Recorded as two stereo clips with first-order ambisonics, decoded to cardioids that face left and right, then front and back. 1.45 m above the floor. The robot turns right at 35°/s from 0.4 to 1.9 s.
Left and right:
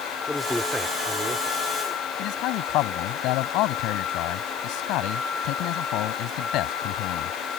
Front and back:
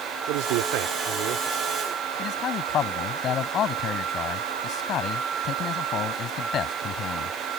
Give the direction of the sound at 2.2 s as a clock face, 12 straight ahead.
10 o'clock.